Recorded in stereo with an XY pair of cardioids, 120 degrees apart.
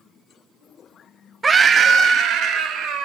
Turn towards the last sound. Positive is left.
turn(degrees=-70)